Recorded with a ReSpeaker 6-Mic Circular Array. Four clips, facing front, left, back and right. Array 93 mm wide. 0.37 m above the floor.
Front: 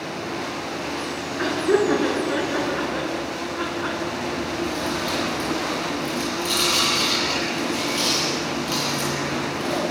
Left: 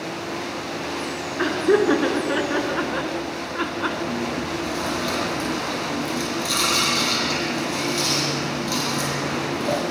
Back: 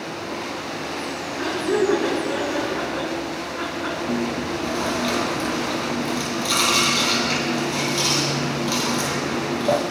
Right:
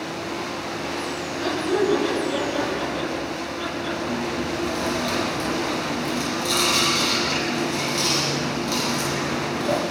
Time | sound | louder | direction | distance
1.4 | laughter | left 4 dB, front 2 dB | 75° left | 6 m
4.1 | chewing | even, back 3 dB | straight behind | 7.5 m